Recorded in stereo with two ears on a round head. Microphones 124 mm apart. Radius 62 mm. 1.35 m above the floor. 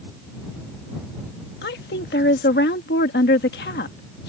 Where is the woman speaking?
85° left.